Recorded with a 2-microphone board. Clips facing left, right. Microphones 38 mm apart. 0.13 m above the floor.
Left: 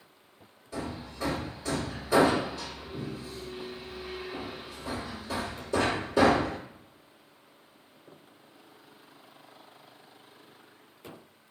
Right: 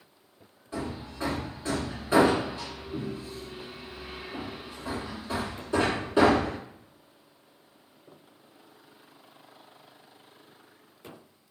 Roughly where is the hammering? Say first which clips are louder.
Right 2 dB; right.